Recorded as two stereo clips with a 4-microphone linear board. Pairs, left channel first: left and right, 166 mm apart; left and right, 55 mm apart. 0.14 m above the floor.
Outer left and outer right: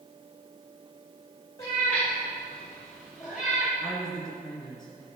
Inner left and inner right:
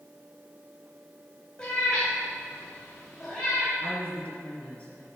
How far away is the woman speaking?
About 3.5 m.